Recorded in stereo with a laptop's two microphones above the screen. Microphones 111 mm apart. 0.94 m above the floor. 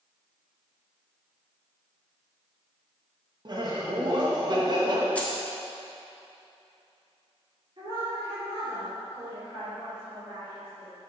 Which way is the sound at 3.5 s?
40° right (ahead or behind).